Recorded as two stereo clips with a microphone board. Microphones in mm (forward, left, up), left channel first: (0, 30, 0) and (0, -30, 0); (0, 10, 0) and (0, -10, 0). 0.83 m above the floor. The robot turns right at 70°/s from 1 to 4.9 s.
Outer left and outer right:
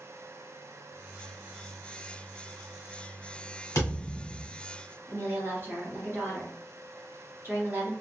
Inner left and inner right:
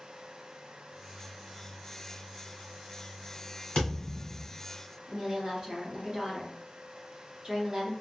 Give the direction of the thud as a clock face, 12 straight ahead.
9 o'clock.